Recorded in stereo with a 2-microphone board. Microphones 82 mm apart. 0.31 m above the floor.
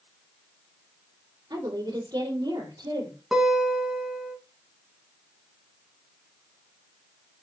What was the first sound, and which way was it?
A woman speaking, 50° right (ahead or behind).